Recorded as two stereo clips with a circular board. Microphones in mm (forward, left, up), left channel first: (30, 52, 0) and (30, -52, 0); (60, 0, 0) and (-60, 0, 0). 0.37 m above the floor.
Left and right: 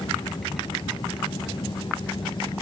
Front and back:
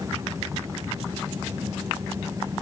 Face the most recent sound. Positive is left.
No sound to turn to.